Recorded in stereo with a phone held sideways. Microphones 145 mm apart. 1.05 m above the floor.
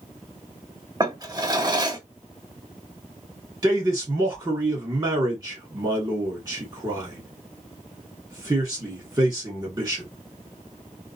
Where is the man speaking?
30° right (ahead or behind), 2 m.